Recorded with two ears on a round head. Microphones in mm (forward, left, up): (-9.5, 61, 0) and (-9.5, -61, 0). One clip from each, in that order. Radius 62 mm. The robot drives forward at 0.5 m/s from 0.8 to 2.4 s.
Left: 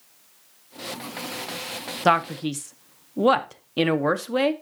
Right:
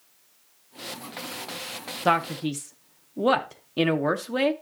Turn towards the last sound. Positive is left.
turn(degrees=15)  # may be behind; listen again after turning